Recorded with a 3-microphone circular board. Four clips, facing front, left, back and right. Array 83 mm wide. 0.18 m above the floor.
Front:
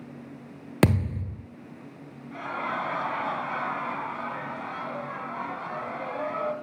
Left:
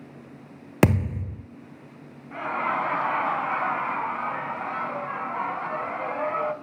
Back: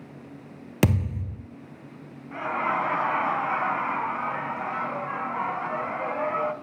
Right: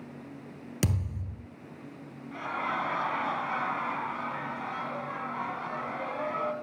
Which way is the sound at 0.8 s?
70° left.